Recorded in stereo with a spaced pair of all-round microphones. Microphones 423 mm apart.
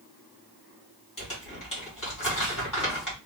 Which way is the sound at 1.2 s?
45° left (ahead or behind).